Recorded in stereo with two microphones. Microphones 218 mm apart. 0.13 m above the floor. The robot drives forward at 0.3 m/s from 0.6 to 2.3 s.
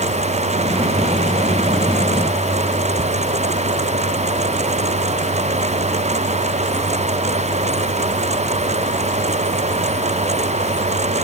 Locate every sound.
Only background noise.